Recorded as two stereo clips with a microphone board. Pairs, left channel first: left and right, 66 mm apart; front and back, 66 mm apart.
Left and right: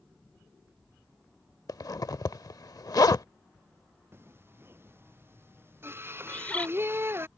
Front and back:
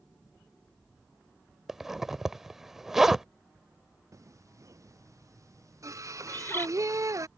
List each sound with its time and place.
1.7 s a zipper: 95° left
4.1 s singing: 145° right
6.3 s a bird: 30° left